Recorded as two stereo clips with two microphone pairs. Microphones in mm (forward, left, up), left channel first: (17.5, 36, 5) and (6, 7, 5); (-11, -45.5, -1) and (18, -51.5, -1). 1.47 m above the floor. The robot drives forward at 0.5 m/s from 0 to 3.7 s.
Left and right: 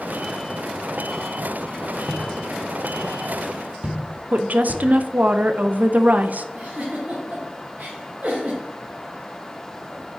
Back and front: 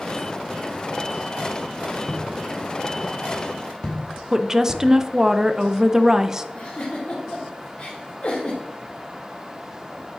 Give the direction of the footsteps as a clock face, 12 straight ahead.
5 o'clock.